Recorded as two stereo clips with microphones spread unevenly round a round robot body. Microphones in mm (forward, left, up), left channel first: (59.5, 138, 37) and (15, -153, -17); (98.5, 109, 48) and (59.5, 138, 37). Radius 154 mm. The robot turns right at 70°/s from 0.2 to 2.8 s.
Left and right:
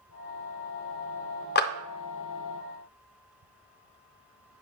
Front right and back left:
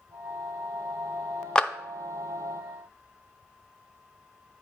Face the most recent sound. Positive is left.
turn(degrees=140)